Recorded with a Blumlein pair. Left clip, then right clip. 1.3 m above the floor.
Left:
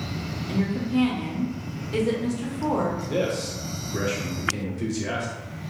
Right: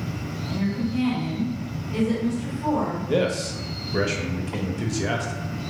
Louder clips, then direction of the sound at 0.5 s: Left 1 dB; 60° left.